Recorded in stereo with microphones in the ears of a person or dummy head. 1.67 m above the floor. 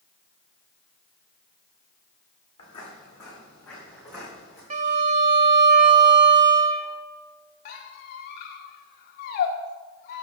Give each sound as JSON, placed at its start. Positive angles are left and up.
{"t": 2.6, "sound": "footsteps", "side_deg": 30, "distance_m": 4.5}
{"t": 4.7, "sound": "a violin", "side_deg": -35, "distance_m": 0.8}
{"t": 7.7, "sound": "a squeak", "side_deg": 50, "distance_m": 1.1}